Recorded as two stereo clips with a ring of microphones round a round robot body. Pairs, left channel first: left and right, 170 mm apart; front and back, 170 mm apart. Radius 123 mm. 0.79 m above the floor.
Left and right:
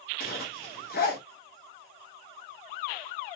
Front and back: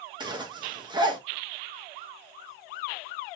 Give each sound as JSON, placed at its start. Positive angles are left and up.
{"t": 0.2, "sound": "a zipper", "azimuth_deg": 120, "distance_m": 1.3}